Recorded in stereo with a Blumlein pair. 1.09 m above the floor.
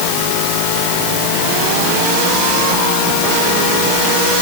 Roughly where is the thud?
No thud in this recording.